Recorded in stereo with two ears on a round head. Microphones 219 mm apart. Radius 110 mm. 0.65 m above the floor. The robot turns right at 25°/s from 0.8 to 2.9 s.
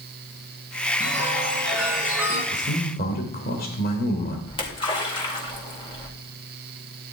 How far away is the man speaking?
About 2.5 m.